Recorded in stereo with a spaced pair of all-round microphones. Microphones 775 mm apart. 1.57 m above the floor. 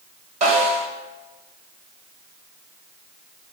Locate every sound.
0.4 s a snare drum: 60° right (ahead or behind), 1.6 m